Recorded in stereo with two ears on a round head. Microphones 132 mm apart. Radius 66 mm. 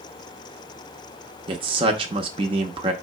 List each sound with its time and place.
1.5 s a man speaking: 35° right (ahead or behind), 0.6 m